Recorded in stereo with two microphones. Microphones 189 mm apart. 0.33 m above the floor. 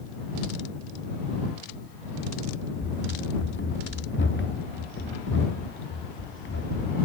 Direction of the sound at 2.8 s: 70° left (ahead or behind).